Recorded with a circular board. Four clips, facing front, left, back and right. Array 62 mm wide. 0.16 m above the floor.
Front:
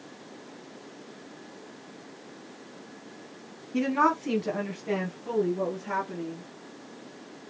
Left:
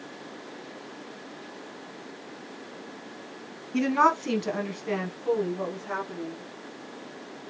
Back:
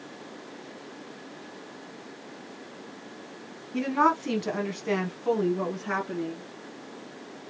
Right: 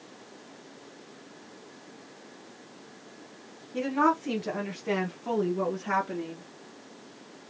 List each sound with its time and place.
3.7 s a woman speaking: 80° left, 1.2 m; by 6.4 s 140° right, 2.0 m